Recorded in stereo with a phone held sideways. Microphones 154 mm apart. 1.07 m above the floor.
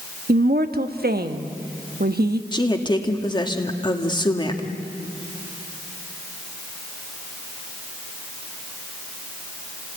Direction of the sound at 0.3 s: 85° right.